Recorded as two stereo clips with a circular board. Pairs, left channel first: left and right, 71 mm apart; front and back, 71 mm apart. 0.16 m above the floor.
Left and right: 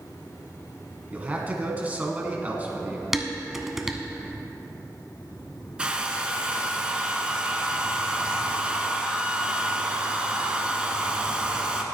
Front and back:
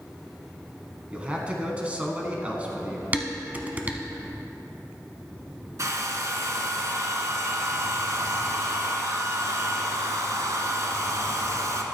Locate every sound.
1.1 s a man speaking: 130° right, 1.3 m
3.1 s dishes clattering: 170° right, 0.7 m
5.8 s a hair dryer: 160° right, 0.9 m